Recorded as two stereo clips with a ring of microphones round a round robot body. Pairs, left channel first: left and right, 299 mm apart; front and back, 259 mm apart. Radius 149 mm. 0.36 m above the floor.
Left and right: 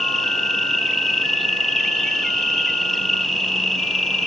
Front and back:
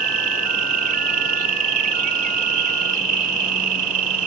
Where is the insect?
Straight behind.